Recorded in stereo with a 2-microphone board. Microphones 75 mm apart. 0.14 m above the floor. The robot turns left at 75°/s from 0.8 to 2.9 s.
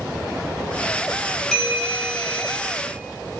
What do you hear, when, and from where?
1.5 s a bell: 5° left (ahead or behind), 0.6 m; by 2.6 s 20° right (ahead or behind), 0.6 m